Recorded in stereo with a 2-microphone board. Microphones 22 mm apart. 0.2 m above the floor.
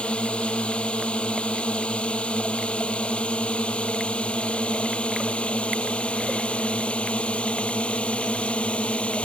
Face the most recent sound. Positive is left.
turn(degrees=70)  # may be behind; listen again after turning